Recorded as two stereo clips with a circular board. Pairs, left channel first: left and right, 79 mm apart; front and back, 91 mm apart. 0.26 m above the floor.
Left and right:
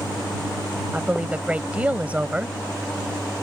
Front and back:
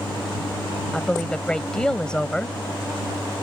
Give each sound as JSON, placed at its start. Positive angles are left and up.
{"t": 0.9, "sound": "a woman speaking", "azimuth_deg": -60}